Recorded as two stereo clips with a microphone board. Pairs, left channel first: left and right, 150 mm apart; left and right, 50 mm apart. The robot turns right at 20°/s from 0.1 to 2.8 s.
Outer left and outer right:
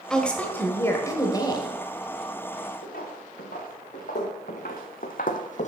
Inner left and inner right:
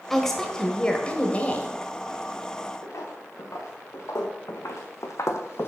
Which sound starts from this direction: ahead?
A woman speaking, at 0.1 s.